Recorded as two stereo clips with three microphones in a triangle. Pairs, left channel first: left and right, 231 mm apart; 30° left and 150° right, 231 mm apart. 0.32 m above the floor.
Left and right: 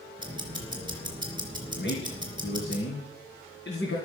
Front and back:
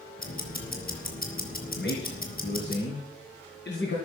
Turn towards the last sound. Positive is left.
turn(degrees=60)